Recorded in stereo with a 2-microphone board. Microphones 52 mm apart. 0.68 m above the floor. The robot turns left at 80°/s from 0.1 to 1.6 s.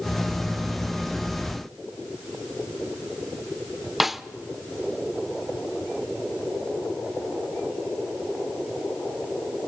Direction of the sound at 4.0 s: 5° right (ahead or behind).